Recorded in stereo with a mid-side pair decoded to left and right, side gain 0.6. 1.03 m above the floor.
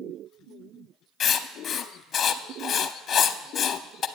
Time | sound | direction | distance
1.2 | writing | 40° left | 0.6 m